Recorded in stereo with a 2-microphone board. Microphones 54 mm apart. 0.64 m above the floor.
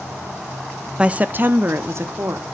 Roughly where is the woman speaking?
Centre.